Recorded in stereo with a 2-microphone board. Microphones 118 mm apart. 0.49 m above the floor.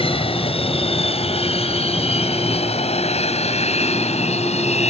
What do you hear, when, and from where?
0.0 s an aircraft: 50° left (ahead or behind); by 4.9 s 65° left (ahead or behind)